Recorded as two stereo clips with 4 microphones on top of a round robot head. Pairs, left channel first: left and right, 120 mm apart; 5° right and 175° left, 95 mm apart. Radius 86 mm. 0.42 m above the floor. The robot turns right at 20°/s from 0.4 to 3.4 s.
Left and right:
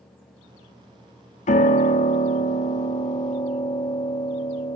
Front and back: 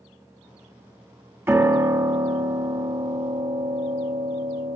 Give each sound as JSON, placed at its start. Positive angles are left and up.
{"t": 1.5, "sound": "a piano", "azimuth_deg": 110, "distance_m": 1.7}